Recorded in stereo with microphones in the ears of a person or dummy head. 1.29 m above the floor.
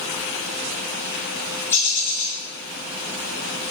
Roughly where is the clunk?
No clunk in this recording.